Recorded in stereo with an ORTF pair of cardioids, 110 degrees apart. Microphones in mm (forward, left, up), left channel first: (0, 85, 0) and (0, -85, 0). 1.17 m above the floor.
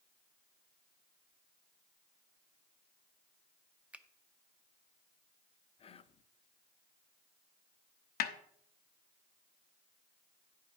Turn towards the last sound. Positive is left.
turn(degrees=70)